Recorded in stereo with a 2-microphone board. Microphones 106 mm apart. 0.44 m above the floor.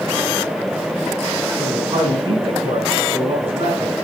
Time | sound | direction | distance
1.6 | a man speaking | 60° right (ahead or behind) | 3.5 m